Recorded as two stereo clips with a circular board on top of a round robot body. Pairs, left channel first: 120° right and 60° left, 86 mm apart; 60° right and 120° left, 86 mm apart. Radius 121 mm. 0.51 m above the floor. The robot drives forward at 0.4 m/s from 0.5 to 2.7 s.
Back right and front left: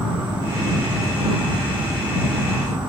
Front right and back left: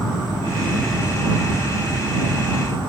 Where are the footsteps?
I don't hear footsteps.